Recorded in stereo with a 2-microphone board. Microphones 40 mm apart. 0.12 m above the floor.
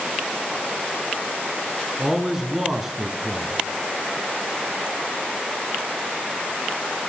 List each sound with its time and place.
2.0 s a man speaking: 15° right (ahead or behind), 1.1 m